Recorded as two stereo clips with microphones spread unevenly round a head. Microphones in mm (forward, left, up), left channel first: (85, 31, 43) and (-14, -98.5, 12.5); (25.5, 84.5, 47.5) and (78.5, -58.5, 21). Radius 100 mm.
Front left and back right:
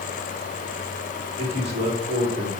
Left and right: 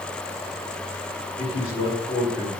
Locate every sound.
1.4 s a man speaking: 175° left, 3.5 m